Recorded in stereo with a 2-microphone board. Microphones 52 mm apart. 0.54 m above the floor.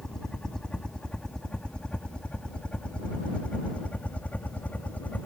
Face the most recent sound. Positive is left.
turn(degrees=35)  # may be behind; listen again after turning